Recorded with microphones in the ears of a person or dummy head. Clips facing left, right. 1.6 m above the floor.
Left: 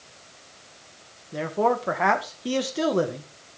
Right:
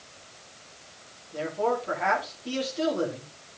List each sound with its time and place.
1.3 s a man speaking: 75° left (ahead or behind), 2.5 m